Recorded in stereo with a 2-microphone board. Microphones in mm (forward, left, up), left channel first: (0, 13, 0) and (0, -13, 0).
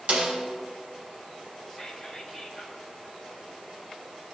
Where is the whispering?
10° left (ahead or behind), 2 m.